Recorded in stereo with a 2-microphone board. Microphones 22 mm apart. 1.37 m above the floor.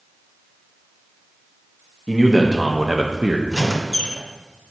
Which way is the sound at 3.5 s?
15° left (ahead or behind).